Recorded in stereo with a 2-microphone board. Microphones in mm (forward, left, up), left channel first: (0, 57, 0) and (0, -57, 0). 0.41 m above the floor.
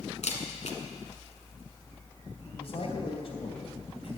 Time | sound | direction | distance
0.2 | a camera shutter | 80° left | 1.7 m
2.5 | a man speaking | 60° left (ahead or behind) | 3 m